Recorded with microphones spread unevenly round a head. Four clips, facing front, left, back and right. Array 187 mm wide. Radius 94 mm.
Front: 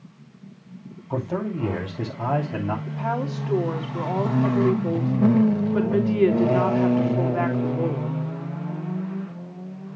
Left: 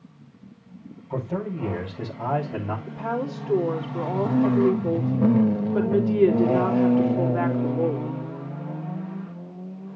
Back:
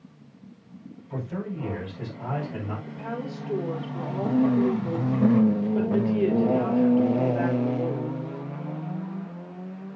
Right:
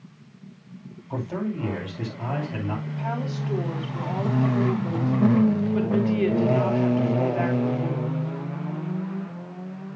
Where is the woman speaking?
25° left, 3.5 m.